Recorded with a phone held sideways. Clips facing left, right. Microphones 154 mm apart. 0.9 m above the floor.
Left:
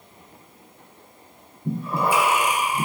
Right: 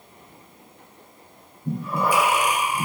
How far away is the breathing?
About 0.5 m.